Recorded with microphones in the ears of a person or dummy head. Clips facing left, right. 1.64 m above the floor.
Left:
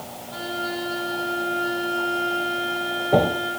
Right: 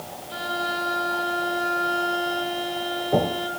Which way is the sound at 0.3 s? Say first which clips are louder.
Left 1 dB; 65° right (ahead or behind).